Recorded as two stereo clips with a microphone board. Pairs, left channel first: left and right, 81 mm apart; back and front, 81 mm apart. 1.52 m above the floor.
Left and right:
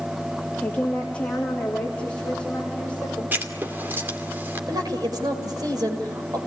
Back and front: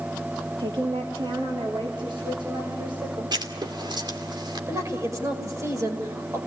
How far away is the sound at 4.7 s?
About 5.5 m.